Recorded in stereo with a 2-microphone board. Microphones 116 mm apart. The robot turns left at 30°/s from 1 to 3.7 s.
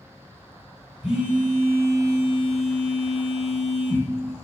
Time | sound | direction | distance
1.0 | a phone buzzing | 5° right | 1.0 m